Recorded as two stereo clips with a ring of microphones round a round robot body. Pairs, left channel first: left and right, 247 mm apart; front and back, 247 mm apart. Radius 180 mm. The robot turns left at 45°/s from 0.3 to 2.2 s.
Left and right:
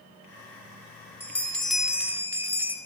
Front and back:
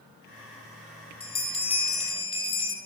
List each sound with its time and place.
1.2 s a bell: 25° left, 1.5 m; by 2.8 s 20° right, 1.5 m